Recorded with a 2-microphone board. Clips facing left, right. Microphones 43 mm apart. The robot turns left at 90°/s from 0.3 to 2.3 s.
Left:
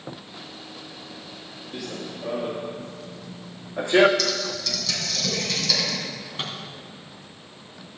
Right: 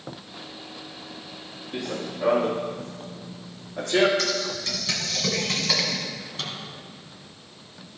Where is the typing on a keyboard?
35° right (ahead or behind), 2.5 m.